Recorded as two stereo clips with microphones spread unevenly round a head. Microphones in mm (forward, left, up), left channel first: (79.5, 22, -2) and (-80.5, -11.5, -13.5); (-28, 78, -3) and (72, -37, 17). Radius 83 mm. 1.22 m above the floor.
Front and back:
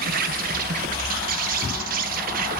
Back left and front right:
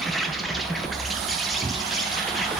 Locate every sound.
0.0 s an insect: 145° right, 0.9 m